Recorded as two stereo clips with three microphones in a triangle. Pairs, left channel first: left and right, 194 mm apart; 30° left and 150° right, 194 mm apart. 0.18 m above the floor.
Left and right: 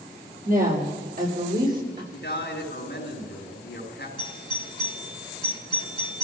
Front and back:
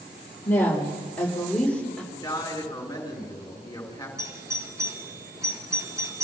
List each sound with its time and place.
0.5 s a woman speaking: 50° right, 5 m; by 2.0 s 55° right, 7 m
2.1 s a man speaking: 100° left, 4 m
4.2 s a doorbell: 140° left, 3 m